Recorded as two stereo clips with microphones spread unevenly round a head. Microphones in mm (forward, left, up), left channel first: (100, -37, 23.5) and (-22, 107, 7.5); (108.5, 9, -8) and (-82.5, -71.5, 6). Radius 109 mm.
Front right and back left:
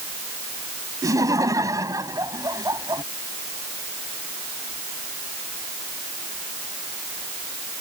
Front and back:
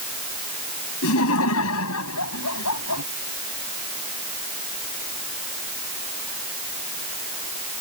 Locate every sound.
1.0 s laughter: 55° left